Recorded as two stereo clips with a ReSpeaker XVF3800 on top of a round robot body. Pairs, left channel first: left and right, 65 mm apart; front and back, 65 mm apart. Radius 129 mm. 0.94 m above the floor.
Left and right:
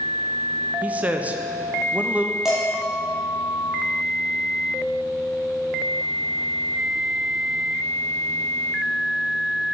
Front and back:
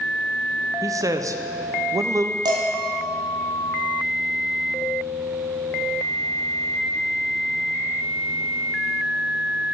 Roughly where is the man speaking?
Behind right.